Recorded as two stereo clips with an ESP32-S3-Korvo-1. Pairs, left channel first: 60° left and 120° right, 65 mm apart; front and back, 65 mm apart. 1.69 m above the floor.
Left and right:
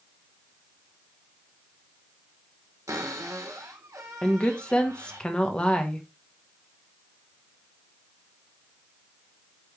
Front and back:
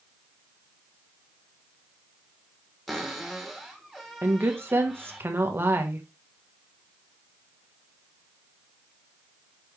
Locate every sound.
2.9 s a cupboard door: 90° right, 1.7 m
4.2 s a woman speaking: 130° left, 1.3 m